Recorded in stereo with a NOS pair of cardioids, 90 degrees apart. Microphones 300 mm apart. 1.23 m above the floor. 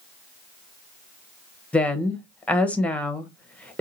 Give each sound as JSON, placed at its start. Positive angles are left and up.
{"t": 1.7, "sound": "a woman speaking", "azimuth_deg": 5, "distance_m": 0.9}